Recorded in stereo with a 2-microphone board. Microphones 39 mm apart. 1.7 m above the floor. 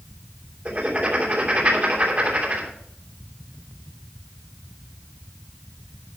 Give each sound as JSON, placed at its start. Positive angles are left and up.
{"t": 0.7, "sound": "writing", "side_deg": -35, "distance_m": 3.0}